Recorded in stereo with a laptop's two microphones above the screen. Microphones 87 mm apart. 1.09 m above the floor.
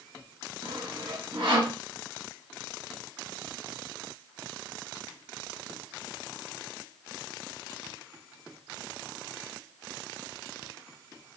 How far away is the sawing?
About 3 m.